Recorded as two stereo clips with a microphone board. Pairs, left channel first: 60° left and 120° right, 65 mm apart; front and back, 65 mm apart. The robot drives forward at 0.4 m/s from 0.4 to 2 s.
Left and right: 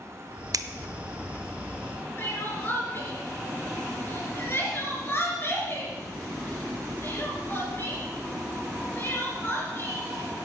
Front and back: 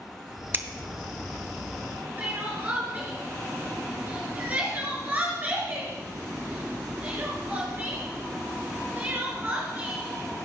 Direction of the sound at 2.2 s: 115° left.